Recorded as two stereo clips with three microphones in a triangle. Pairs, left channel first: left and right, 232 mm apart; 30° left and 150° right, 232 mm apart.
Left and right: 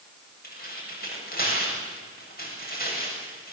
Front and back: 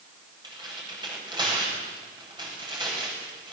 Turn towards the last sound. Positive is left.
turn(degrees=140)